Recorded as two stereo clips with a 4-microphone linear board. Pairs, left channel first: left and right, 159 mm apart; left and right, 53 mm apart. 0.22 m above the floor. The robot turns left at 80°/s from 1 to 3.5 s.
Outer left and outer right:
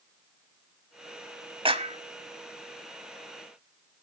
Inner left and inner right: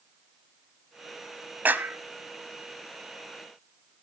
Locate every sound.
1.6 s a clap: 35° right (ahead or behind), 1.2 m